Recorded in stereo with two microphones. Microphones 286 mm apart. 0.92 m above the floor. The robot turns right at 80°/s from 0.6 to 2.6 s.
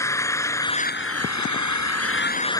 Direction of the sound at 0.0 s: 10° left.